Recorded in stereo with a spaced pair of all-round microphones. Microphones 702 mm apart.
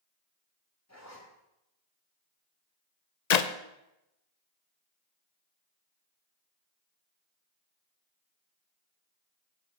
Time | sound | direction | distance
0.9 | a zipper | 20° left (ahead or behind) | 2.5 m
3.3 | a clap | 70° left (ahead or behind) | 0.7 m